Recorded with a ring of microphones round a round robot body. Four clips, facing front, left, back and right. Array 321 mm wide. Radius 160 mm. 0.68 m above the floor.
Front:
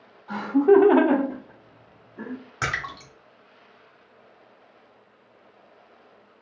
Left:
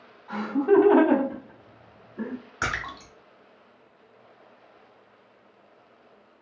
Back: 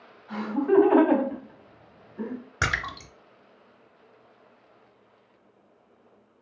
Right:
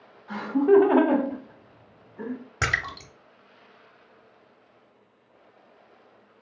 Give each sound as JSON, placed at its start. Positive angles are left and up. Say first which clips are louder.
{"t": 0.3, "sound": "laughter", "louder": "right 2 dB, front 6 dB", "azimuth_deg": -25, "distance_m": 1.9}
{"t": 2.6, "sound": "a splash", "louder": "right 2 dB, back 1 dB", "azimuth_deg": -125, "distance_m": 0.8}